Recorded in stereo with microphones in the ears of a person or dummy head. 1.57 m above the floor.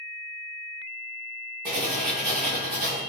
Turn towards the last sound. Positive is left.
turn(degrees=-40)  # may be behind; listen again after turning